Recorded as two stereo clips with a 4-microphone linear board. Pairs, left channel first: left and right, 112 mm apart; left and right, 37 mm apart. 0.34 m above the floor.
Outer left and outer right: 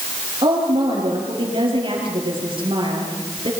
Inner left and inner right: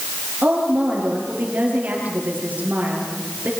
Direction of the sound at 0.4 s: 50° right (ahead or behind).